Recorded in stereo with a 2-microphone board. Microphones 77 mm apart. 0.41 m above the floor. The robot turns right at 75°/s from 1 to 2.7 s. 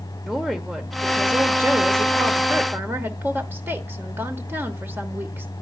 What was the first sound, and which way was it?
A woman speaking, 175° right.